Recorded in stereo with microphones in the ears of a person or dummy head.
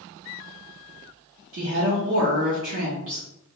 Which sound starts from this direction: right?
A woman speaking, at 1.5 s.